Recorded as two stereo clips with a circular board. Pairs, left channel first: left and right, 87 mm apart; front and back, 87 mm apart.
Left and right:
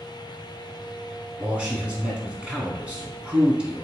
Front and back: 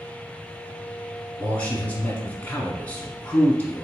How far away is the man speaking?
About 1.1 m.